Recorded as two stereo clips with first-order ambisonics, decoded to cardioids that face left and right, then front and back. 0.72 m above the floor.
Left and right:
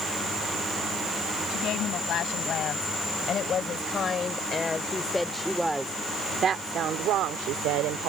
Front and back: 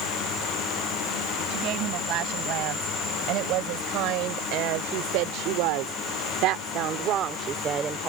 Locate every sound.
1.5 s a woman speaking: 140° left; by 8.1 s 110° right